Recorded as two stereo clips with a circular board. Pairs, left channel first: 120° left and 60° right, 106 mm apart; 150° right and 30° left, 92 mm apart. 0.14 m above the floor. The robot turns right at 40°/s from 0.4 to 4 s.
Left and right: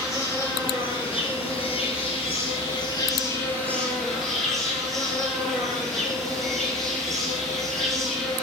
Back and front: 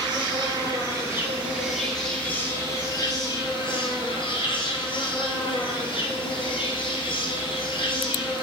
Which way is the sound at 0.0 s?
65° left.